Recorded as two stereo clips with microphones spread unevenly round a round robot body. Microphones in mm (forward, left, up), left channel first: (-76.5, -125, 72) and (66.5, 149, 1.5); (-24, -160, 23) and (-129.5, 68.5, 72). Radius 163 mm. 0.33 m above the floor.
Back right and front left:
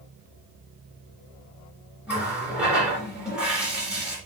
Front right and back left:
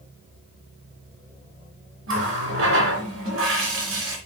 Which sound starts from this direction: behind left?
A running tap, at 2.1 s.